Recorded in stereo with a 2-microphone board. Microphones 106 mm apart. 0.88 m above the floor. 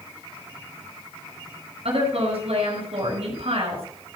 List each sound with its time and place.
1.9 s a woman speaking: 70° right (ahead or behind), 5.5 m